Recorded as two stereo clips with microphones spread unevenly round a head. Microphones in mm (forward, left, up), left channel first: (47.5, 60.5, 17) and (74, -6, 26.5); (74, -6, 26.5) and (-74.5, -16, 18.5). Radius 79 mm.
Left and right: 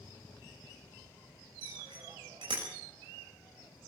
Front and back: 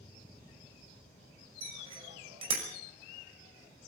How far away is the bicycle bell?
About 6 m.